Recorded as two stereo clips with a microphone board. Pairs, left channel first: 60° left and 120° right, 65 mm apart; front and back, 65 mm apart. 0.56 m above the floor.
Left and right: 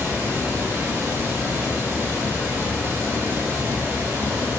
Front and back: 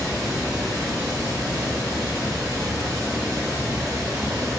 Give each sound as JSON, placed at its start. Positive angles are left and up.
{"t": 0.0, "sound": "running water", "azimuth_deg": 180, "distance_m": 1.1}